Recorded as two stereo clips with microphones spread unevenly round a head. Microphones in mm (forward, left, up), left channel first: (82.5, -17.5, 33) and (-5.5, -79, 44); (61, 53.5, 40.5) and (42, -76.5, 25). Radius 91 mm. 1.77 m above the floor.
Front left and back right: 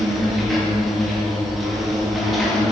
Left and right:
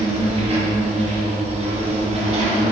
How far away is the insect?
About 2 m.